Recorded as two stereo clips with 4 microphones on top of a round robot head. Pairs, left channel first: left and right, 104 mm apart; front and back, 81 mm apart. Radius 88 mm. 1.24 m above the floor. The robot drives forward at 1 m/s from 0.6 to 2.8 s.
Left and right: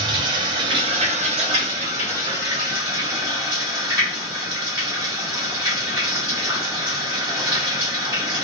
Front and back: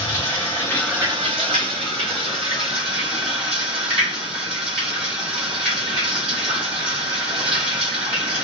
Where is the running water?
60° right, 0.8 m; by 8.4 s 165° right, 2 m.